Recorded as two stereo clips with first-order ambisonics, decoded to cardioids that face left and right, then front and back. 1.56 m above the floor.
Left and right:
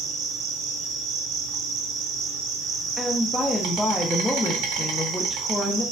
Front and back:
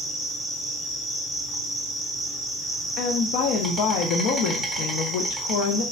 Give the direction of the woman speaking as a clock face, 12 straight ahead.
12 o'clock.